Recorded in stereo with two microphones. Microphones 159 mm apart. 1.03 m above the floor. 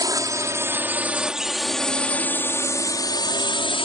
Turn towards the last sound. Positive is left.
turn(degrees=35)  # may be behind; listen again after turning